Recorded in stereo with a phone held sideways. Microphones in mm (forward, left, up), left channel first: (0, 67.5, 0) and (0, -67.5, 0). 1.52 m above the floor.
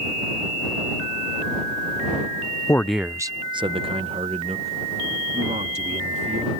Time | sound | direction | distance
2.7 | a man speaking | 25° left (ahead or behind) | ?